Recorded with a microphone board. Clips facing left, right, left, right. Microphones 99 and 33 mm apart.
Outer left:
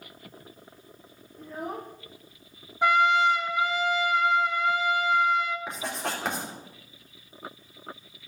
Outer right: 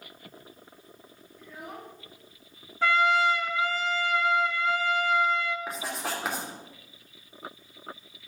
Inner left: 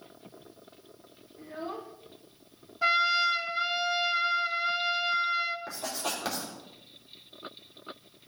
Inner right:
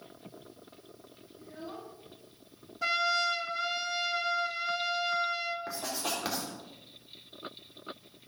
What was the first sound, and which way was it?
A child speaking, 40° left (ahead or behind).